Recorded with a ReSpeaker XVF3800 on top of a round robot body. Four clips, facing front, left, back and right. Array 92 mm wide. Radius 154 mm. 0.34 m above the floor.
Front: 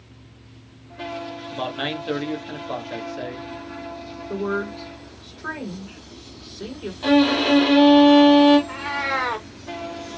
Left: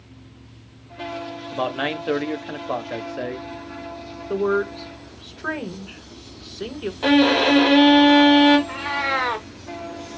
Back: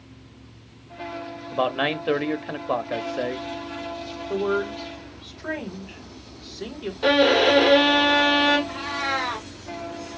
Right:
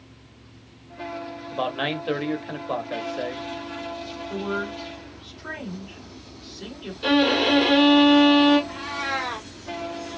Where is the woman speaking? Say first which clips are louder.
Left 8 dB, back 1 dB; 90° left, 3 m.